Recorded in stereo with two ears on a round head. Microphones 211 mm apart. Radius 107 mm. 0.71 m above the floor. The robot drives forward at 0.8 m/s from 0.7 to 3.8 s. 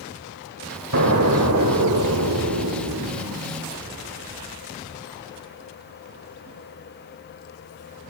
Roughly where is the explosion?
Right.